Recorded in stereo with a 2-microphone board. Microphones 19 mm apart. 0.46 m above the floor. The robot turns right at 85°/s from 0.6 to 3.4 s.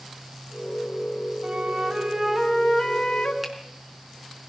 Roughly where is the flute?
Right.